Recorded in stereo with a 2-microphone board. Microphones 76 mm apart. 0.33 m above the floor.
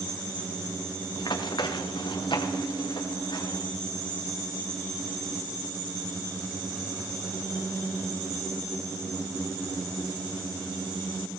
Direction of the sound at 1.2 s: 65° left (ahead or behind).